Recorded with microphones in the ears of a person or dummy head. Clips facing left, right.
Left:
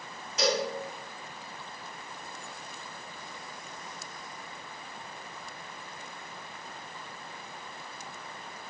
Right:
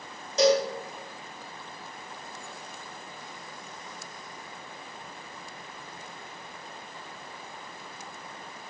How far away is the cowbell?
About 1.3 m.